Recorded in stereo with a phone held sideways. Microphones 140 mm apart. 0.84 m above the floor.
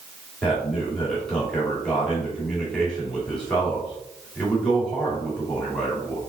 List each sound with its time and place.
0.4 s a man speaking: 5° left (ahead or behind), 2 m